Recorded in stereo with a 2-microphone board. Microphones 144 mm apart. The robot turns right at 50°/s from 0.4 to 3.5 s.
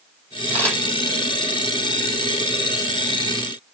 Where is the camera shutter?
20° left (ahead or behind), 4.5 m; by 0.8 s 5° left (ahead or behind), 4.5 m.